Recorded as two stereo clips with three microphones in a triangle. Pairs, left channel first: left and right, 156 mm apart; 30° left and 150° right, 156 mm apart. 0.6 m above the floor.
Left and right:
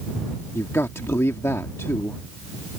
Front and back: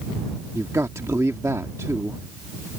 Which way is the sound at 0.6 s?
155° left.